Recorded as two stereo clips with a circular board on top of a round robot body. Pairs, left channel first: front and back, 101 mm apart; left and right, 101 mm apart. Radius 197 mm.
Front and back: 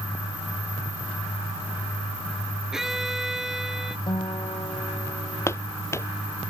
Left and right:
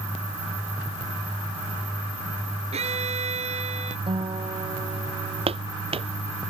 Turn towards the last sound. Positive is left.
turn(degrees=-65)